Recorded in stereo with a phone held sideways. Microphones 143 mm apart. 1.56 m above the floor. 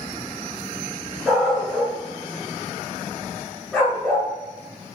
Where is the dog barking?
Centre (ahead or behind), 5 m; by 4.3 s 5° right (ahead or behind), 7 m.